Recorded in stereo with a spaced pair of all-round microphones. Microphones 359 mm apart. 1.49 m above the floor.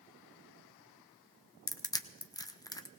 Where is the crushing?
10° left (ahead or behind), 0.6 m.